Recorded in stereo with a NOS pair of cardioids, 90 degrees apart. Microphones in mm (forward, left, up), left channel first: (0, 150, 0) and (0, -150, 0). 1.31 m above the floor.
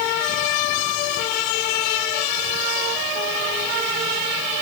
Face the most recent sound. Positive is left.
No sound to turn to.